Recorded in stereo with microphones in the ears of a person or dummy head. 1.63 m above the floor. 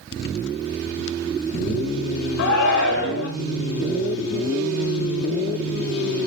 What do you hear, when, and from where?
2.4 s a shout: 60° left (ahead or behind), 1.4 m